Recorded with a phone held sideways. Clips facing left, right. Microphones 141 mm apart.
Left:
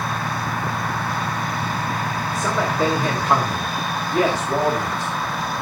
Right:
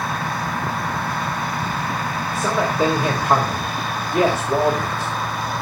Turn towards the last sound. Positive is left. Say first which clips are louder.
# right 2 dB
turn(degrees=-10)  # may be behind; listen again after turning